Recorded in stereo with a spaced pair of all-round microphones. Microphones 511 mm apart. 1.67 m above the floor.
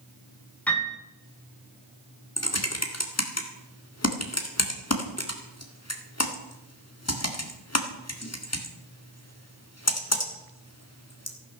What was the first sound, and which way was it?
A piano, 5° left (ahead or behind).